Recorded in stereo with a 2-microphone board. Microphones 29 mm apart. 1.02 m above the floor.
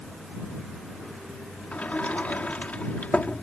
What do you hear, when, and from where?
1.7 s a sliding door: 55° left (ahead or behind)